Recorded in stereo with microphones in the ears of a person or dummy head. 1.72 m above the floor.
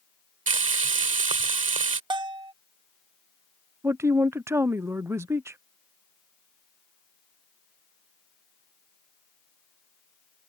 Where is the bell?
25° right (ahead or behind).